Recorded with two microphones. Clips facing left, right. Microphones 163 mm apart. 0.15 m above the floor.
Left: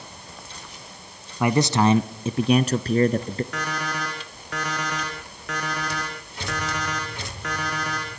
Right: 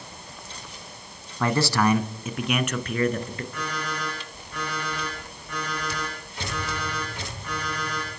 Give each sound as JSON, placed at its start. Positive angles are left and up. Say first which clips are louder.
{"t": 1.4, "sound": "a man speaking", "louder": "left 3 dB", "side_deg": 15, "distance_m": 1.1}
{"t": 3.5, "sound": "an alarm clock", "louder": "left 2 dB", "side_deg": 85, "distance_m": 7.0}